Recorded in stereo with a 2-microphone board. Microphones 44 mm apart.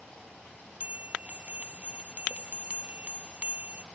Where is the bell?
35° right (ahead or behind).